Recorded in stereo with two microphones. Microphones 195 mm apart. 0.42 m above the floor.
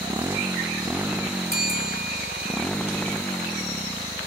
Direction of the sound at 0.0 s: 15° right (ahead or behind).